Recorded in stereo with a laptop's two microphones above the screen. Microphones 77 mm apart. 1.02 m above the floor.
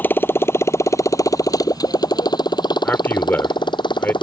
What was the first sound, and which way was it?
A motorcycle, 25° left (ahead or behind).